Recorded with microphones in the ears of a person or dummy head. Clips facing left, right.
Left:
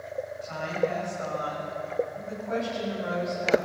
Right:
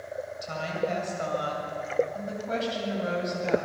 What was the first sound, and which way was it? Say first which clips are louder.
A woman speaking: left 2 dB; 55° right (ahead or behind).